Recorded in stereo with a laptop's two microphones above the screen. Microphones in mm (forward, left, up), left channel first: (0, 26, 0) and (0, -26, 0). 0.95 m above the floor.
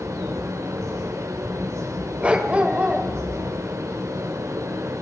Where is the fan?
80° right, 2 m.